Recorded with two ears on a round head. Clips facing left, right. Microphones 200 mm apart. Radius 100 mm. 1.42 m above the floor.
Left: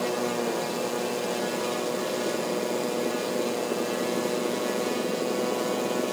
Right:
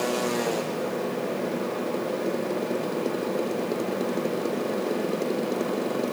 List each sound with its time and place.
Only background noise.